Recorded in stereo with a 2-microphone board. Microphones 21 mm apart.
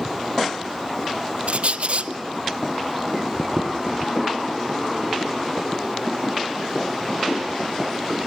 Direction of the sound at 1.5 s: 70° right (ahead or behind).